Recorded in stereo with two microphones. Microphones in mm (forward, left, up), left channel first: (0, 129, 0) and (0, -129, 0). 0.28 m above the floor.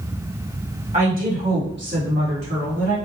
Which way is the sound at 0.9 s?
30° right (ahead or behind).